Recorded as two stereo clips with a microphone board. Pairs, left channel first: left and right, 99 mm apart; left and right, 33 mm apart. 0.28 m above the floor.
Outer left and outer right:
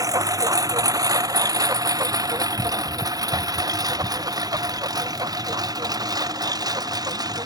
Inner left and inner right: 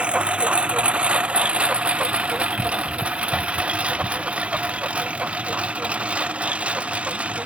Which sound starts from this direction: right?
A lawn mower, at 0.0 s.